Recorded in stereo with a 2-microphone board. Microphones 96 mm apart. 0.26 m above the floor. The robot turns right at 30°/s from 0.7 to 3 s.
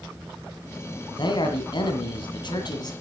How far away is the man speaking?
About 2 m.